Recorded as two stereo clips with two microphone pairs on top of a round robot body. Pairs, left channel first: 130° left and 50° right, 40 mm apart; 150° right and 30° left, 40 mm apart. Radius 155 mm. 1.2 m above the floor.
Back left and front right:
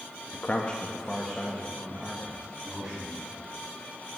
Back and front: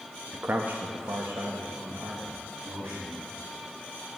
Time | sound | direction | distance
0.3 | a man speaking | 85° left | 0.7 m